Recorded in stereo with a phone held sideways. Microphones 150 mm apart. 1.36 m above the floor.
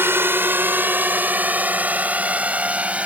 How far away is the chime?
No chime in this recording.